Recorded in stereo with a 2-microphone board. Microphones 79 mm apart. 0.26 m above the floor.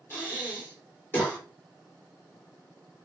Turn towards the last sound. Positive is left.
turn(degrees=25)  # may be behind; listen again after turning